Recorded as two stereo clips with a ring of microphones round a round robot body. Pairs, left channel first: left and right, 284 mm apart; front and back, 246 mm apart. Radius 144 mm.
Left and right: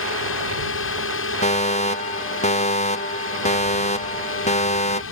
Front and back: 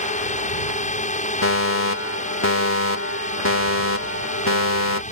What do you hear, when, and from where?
0.0 s a drone: 55° left
1.4 s a fire alarm: 25° left